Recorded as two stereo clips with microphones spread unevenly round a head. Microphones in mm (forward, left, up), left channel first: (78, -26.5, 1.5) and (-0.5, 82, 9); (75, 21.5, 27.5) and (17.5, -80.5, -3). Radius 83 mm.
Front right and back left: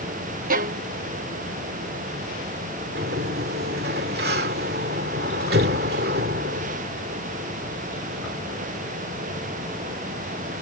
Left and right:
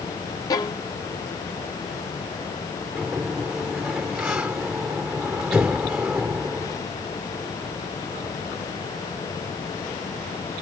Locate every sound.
0.5 s a violin: 120° left
3.0 s a sliding door: 155° left